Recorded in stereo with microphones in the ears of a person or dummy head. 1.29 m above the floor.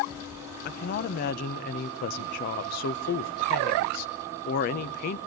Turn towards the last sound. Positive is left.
turn(degrees=50)  # may be behind; listen again after turning